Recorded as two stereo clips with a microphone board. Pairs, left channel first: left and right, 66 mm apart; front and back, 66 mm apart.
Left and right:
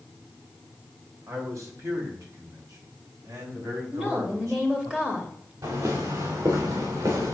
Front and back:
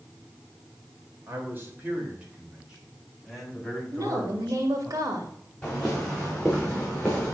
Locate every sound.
1.3 s a man speaking: 130° right, 3 m; by 4.9 s 70° right, 4.5 m
3.9 s a woman speaking: 165° right, 2.5 m
5.6 s footsteps: 75° right, 3 m